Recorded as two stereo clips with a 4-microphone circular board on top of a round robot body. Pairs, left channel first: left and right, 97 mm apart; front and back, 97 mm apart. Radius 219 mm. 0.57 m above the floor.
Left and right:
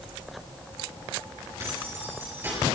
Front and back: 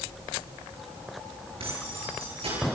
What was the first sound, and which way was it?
Keys jangling, 155° right.